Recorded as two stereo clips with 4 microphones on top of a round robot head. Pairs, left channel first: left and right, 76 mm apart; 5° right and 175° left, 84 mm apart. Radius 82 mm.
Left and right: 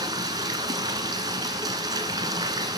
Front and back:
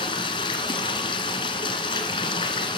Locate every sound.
0.0 s running water: 40° right, 1.4 m